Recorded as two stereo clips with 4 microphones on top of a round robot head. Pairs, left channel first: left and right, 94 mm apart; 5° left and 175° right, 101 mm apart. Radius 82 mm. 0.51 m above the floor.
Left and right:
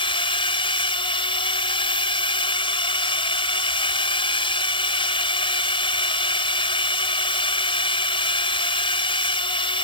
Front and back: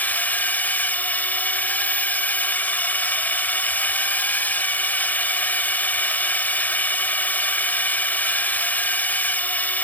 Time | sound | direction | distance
0.0 | a drone | 75° left | ?